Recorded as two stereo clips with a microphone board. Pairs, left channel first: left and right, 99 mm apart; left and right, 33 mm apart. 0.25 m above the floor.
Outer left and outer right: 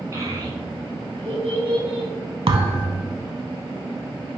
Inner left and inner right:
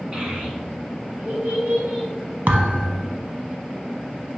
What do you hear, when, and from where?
0.1 s a child speaking: 30° right (ahead or behind), 1.6 m; by 2.1 s 75° right (ahead or behind), 2.5 m
2.5 s a thud: 60° right (ahead or behind), 0.6 m